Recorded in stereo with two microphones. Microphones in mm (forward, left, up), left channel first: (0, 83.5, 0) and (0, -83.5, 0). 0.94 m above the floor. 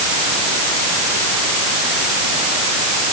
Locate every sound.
Only background noise.